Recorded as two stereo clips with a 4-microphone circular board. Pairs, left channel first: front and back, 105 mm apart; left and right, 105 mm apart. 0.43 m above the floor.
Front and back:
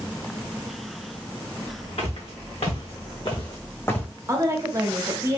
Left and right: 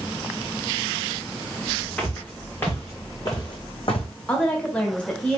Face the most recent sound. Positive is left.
turn(degrees=160)